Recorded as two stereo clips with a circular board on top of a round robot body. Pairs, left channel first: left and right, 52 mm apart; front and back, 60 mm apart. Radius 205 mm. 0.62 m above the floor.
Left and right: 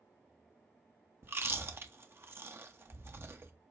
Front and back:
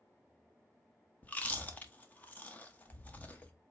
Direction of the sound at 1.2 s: 60° right.